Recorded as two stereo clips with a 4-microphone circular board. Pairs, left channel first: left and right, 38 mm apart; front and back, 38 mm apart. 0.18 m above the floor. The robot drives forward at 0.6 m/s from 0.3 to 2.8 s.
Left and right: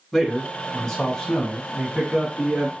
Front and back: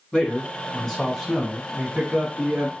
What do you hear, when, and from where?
0.1 s a man speaking: 30° left, 1.2 m; by 2.7 s 160° left, 1.4 m